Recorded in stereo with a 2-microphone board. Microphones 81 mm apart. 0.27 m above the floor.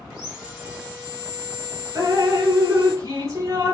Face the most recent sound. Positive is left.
turn(degrees=-40)  # may be behind; listen again after turning